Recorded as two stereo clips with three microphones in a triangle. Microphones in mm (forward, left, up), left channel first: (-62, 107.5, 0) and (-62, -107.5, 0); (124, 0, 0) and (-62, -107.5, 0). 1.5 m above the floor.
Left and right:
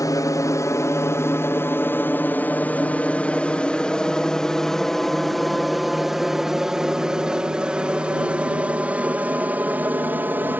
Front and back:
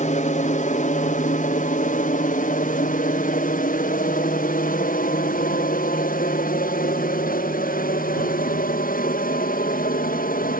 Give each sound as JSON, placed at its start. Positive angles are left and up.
{"t": 0.0, "sound": "an aircraft", "azimuth_deg": 30}